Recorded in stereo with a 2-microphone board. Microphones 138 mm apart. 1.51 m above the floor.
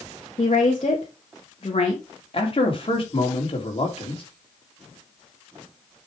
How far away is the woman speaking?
About 2.0 m.